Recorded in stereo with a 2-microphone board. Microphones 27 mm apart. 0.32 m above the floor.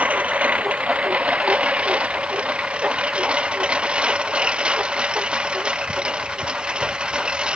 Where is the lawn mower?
60° right (ahead or behind); by 7.6 s 40° right (ahead or behind).